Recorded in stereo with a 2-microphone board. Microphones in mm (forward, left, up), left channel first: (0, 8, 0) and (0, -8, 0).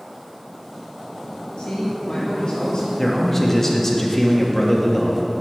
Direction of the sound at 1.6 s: 70° left (ahead or behind).